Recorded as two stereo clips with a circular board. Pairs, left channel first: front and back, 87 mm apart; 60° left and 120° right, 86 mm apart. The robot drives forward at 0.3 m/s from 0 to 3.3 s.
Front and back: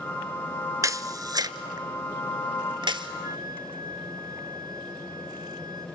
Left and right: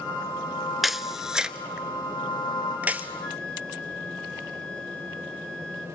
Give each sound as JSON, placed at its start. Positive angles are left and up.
{"t": 0.8, "sound": "a camera shutter", "azimuth_deg": 155, "distance_m": 0.6}
{"t": 3.2, "sound": "a flute", "azimuth_deg": 140, "distance_m": 1.2}